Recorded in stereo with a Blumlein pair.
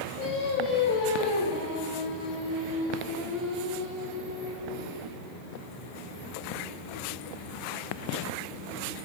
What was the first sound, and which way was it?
Singing, 45° left.